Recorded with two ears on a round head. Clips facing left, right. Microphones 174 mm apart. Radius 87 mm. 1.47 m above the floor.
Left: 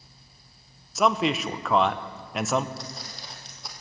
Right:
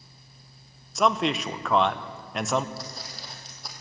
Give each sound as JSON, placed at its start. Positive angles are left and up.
{"t": 0.9, "sound": "a man speaking", "side_deg": 0, "distance_m": 0.5}
{"t": 2.8, "sound": "footsteps", "side_deg": 0, "distance_m": 2.0}